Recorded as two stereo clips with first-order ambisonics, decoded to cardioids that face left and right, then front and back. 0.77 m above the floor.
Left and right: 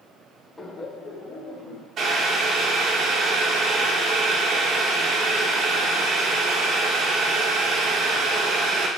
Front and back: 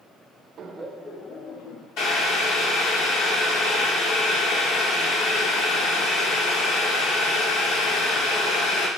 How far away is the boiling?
About 1.7 m.